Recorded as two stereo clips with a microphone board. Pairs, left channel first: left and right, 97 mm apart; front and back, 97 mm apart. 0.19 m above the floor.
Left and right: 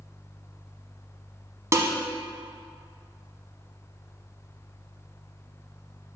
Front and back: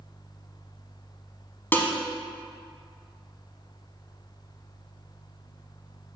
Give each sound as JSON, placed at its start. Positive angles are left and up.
{"t": 1.7, "sound": "dishes clattering", "azimuth_deg": -55, "distance_m": 0.8}